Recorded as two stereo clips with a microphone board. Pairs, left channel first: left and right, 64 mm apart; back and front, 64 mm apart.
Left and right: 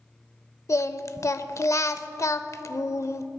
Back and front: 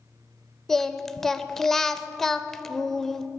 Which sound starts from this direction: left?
Singing, at 0.7 s.